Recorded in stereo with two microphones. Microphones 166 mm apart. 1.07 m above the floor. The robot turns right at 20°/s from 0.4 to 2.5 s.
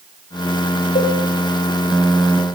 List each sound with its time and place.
0.9 s a cowbell: 60° left (ahead or behind), 4.5 m; by 1.2 s 55° left (ahead or behind), 4.5 m